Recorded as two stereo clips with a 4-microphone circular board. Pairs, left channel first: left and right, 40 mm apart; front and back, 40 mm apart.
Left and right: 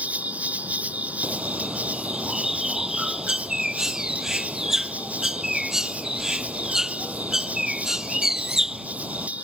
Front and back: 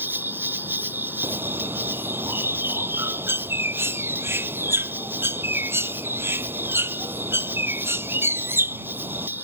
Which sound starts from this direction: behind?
A bird, at 1.2 s.